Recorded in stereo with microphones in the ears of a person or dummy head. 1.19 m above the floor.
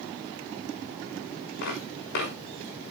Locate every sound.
1.6 s footsteps: 60° left (ahead or behind), 6 m